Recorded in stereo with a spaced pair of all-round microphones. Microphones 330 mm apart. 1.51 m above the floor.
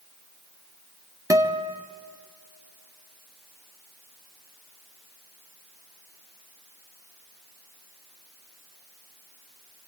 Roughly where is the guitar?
Centre.